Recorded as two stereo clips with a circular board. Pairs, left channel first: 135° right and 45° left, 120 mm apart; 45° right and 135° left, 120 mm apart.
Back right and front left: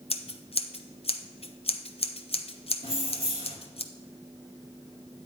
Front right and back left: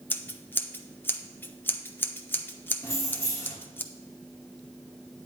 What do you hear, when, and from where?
0.1 s scissors: 115° right, 0.6 m
2.8 s keys jangling: 20° left, 1.7 m